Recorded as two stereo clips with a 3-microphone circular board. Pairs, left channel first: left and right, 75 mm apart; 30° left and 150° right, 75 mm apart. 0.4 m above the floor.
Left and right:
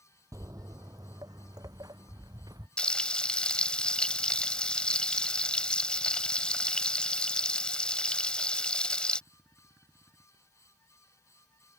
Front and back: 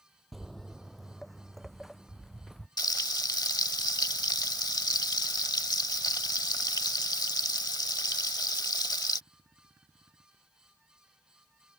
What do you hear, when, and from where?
0.3 s footsteps: 60° right
2.8 s frying: 15° left